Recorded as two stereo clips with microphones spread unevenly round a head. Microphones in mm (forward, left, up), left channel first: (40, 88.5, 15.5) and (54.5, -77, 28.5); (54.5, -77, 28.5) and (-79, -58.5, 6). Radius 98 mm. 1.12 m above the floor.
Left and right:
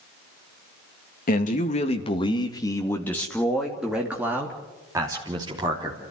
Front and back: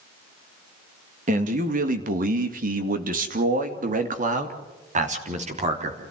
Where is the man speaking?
140° left, 2 m; by 6.0 s 155° right, 4 m.